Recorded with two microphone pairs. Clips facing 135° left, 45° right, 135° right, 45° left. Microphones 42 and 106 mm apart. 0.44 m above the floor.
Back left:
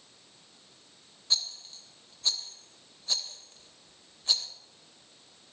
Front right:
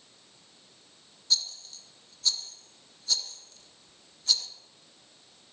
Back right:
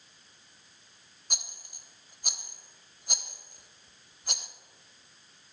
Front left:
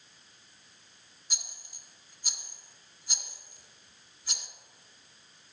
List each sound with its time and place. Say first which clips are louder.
1.3 s a rattle: front right 1 dB, back right 4 dB; 160° right, 0.6 m